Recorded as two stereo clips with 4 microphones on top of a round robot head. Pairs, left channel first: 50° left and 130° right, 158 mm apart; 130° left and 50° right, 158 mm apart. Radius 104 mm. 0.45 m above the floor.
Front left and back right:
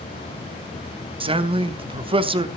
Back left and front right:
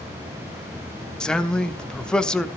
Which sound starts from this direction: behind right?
A man speaking, at 1.2 s.